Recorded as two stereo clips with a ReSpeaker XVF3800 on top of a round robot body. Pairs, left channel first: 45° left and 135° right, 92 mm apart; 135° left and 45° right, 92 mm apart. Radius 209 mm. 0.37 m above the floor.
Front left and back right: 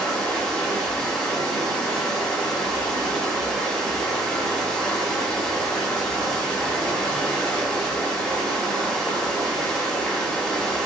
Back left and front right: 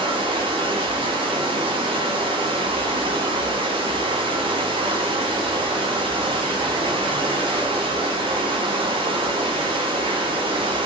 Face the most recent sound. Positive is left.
turn(degrees=-40)